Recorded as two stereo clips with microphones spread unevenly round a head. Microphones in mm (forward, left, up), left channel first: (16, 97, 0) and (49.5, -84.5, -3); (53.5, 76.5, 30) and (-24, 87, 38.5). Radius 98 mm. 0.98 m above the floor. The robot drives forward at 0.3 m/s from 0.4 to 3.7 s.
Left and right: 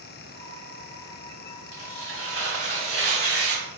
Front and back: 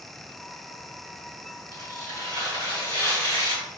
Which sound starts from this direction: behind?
Tearing paper, at 1.7 s.